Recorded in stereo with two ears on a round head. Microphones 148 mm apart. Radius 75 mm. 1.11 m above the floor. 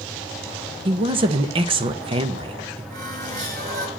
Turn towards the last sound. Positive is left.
turn(degrees=-50)  # may be behind; listen again after turning